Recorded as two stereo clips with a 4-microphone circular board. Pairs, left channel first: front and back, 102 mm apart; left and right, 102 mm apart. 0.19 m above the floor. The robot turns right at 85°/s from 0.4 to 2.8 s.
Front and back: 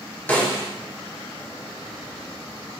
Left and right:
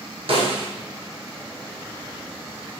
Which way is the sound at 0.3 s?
70° right.